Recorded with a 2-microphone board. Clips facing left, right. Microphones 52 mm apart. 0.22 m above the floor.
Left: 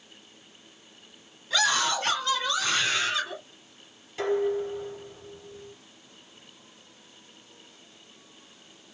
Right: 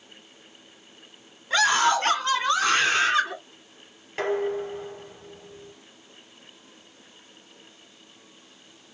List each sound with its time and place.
1.5 s a scream: 40° right (ahead or behind), 1.5 m
4.2 s dishes clattering: 60° right (ahead or behind), 3 m